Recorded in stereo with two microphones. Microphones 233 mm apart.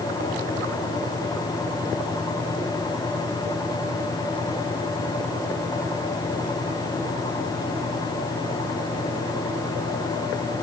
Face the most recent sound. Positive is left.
No sound to turn to.